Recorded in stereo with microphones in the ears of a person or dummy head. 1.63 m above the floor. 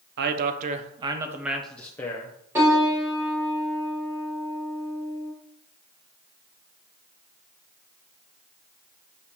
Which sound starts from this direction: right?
A man speaking, at 0.2 s.